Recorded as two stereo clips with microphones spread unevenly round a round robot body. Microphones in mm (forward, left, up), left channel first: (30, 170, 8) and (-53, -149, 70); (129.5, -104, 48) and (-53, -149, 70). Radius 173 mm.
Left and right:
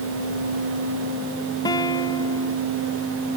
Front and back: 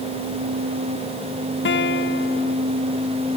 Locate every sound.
1.6 s a guitar: 5° right